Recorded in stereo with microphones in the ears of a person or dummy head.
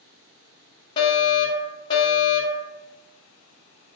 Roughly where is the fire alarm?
Left.